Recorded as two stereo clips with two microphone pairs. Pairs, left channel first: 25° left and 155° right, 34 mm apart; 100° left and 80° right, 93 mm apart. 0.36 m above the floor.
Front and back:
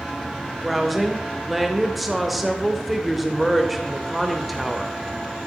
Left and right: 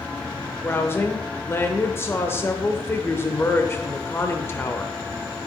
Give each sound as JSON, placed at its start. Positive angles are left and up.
{"t": 0.6, "sound": "a woman speaking", "azimuth_deg": 120, "distance_m": 0.8}